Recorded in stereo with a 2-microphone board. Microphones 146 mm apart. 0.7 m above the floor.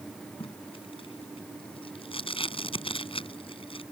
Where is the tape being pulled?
40° left (ahead or behind).